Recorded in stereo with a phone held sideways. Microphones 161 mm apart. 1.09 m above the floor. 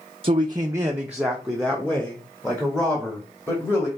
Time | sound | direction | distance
0.2 | a man speaking | 40° right (ahead or behind) | 0.5 m